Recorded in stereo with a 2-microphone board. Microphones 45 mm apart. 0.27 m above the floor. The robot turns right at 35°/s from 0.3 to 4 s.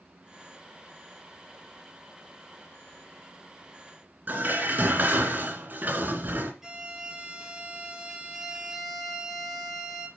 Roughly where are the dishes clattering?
Right.